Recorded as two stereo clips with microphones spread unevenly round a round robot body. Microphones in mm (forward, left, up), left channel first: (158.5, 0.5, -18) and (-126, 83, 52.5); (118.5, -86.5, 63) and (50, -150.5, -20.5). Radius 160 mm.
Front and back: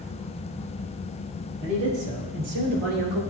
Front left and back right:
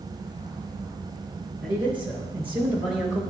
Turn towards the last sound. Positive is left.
turn(degrees=180)